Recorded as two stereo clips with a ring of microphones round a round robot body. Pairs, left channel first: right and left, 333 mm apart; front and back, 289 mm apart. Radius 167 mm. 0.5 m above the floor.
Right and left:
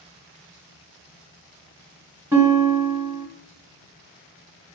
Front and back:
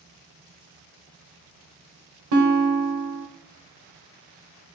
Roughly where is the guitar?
Behind.